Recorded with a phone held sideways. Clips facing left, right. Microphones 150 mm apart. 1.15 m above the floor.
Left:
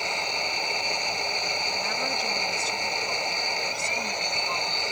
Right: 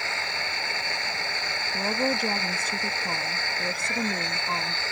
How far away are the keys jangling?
I don't hear keys jangling.